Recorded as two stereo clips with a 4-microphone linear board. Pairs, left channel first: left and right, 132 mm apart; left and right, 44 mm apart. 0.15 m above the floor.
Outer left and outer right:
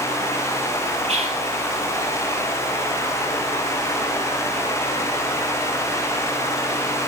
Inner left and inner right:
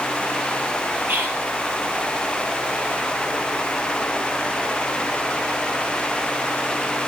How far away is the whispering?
About 4 m.